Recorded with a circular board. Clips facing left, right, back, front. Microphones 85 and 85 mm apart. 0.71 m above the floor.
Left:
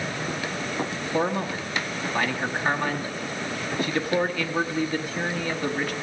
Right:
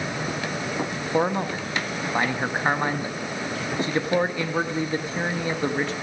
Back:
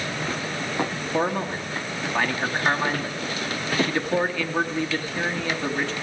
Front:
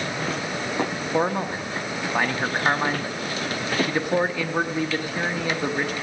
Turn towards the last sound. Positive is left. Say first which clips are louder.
# right 2 dB, front 1 dB
turn(degrees=-60)